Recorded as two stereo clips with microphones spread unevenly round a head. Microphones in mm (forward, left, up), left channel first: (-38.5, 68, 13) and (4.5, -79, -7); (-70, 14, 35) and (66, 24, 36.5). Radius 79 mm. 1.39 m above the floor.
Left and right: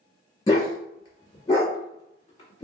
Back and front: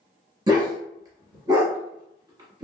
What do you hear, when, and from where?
0.5 s a dog barking: 55° left, 1.1 m